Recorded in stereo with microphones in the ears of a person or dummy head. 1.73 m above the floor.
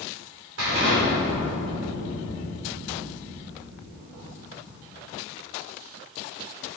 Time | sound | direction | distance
0.6 | an explosion | 70° right (ahead or behind) | 3 m